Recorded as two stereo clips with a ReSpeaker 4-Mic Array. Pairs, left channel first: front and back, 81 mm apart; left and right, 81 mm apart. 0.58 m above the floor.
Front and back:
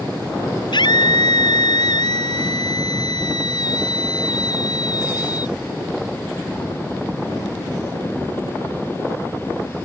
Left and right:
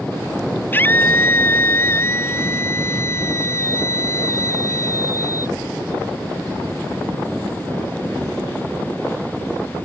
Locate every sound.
0.7 s a scream: 25° left; by 5.5 s 40° left